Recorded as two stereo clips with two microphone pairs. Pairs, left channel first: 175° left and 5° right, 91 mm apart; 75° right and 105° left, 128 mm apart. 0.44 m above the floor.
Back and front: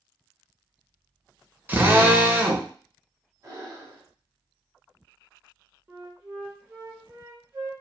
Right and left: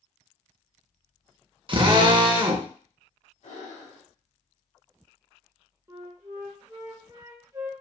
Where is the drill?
65° left, 0.6 m.